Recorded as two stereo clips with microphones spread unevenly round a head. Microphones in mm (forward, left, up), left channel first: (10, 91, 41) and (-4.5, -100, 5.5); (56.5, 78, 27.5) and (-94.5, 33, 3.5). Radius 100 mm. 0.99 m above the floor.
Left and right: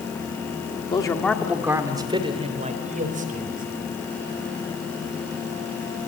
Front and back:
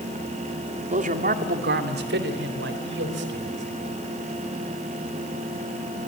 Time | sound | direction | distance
0.9 | a man speaking | 155° left | 1.8 m